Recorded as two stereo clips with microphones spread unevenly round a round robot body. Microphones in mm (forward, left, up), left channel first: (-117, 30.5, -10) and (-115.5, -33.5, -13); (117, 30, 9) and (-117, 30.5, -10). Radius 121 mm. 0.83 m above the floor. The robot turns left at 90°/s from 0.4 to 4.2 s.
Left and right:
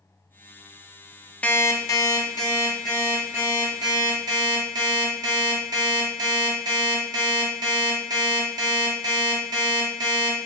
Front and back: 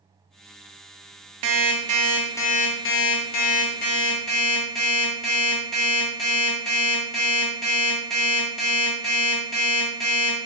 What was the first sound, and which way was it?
An alarm clock, 160° left.